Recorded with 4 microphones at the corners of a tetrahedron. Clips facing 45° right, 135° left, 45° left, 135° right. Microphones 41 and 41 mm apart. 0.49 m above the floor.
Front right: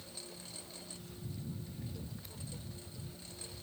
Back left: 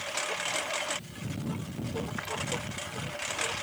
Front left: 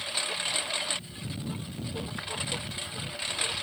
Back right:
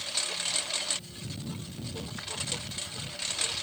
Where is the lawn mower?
120° left.